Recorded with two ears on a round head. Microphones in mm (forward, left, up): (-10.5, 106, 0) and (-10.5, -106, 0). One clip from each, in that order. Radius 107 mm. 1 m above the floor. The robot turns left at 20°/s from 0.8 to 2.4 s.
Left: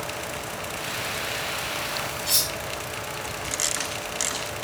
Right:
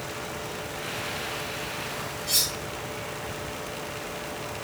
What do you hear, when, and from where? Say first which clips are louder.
2.3 s cutlery clinking: even; 90° left, 1.8 m; by 2.5 s 85° left, 1.8 m